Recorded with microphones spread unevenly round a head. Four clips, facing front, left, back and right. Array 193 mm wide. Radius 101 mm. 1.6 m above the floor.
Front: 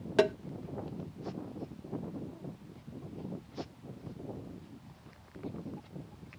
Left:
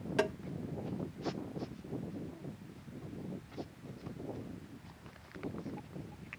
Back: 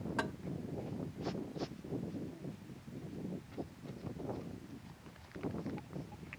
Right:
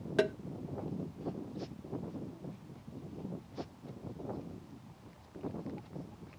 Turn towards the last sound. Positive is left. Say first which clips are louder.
# right 3 dB, front 14 dB
turn(degrees=-20)